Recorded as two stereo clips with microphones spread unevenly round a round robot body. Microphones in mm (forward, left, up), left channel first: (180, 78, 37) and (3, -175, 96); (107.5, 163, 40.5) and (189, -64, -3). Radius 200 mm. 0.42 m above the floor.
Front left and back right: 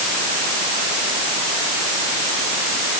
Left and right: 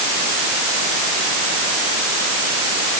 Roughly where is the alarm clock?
I don't hear an alarm clock.